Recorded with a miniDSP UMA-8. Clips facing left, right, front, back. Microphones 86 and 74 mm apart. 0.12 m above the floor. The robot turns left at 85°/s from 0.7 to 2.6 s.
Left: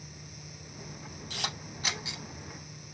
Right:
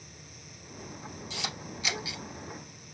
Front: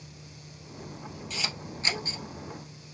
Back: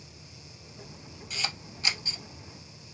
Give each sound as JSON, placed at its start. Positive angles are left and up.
{"t": 1.3, "sound": "a camera shutter", "azimuth_deg": 95, "distance_m": 1.8}